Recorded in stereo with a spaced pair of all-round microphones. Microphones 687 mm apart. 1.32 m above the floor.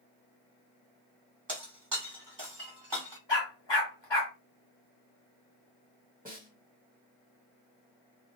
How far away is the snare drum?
About 1.2 m.